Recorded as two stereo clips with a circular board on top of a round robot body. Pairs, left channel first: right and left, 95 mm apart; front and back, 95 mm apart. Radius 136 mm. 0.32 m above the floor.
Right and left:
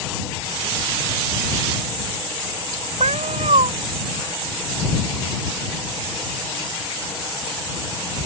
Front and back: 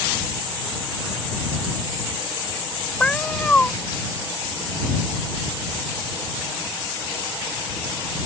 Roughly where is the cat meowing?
Left.